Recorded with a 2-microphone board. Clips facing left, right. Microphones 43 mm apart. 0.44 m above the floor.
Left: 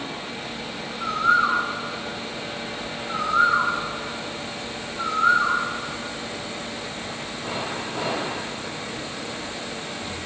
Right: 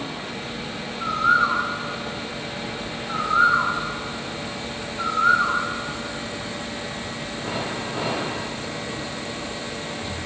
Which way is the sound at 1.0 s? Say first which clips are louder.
Right 1 dB; centre (ahead or behind).